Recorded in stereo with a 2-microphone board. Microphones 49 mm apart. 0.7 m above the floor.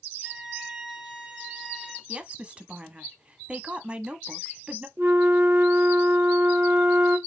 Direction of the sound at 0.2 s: 20° right (ahead or behind).